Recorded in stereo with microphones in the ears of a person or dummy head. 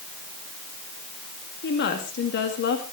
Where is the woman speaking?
55° left (ahead or behind), 2 m.